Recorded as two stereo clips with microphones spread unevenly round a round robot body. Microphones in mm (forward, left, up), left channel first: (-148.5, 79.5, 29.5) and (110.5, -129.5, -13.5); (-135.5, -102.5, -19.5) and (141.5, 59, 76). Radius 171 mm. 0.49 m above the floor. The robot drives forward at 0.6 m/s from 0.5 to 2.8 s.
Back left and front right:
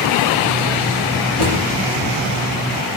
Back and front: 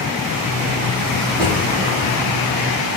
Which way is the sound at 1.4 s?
105° left.